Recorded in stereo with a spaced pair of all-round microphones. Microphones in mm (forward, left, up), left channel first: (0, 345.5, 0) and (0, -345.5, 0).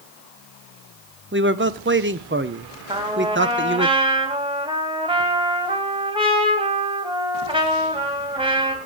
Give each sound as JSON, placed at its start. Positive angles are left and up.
{"t": 1.3, "sound": "a man speaking", "side_deg": -15, "distance_m": 0.8}
{"t": 2.9, "sound": "a trumpet", "side_deg": -10, "distance_m": 2.5}